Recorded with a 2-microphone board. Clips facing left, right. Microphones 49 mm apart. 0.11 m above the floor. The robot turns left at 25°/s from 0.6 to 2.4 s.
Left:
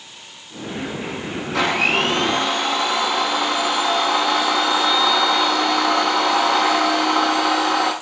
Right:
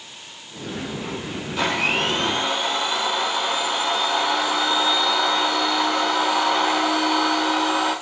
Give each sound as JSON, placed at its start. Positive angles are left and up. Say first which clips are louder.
{"t": 1.5, "sound": "a blender", "louder": "left 3 dB", "side_deg": 85, "distance_m": 8.5}